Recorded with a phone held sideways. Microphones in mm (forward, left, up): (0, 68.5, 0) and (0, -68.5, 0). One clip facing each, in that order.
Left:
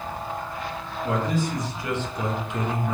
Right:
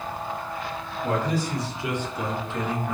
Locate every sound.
1.0 s a man speaking: 45° right (ahead or behind), 1.2 m; by 2.9 s 40° left (ahead or behind), 0.8 m